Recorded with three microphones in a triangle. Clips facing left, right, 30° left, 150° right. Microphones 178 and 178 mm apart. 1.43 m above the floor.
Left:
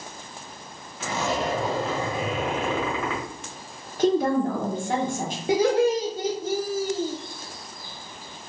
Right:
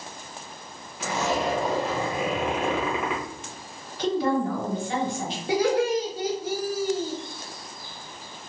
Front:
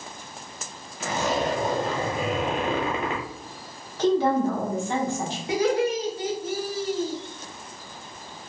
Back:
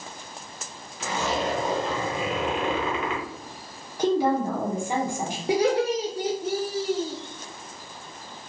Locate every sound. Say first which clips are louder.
1.0 s a zipper: right 1 dB, front 2 dB; 15° right, 1.2 m
4.0 s a woman speaking: left 3 dB, front 1 dB; 135° left, 1.1 m
5.5 s laughter: left 2 dB, back 1 dB; 160° left, 0.6 m